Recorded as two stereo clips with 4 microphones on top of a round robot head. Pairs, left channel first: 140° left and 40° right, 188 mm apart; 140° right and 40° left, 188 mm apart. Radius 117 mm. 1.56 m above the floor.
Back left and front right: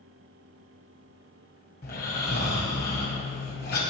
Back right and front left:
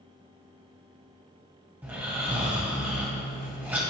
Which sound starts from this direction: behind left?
Snoring, at 1.8 s.